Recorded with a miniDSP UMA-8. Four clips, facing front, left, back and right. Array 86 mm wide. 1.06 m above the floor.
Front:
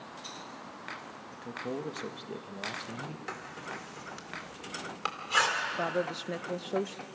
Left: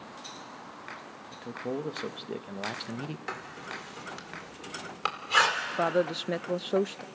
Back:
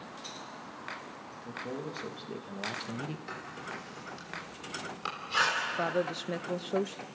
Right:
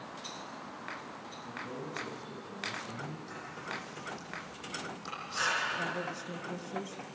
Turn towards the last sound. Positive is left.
turn(degrees=90)